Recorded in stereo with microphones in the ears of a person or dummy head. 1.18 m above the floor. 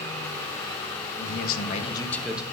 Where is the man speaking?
60° left (ahead or behind), 1.3 m; by 2.4 s 10° right (ahead or behind), 0.9 m.